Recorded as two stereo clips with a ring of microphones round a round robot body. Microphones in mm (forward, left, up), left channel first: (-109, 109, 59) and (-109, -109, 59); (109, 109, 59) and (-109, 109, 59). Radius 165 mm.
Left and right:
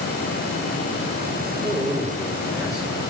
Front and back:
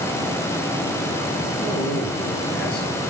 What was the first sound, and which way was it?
A man speaking, 5° left.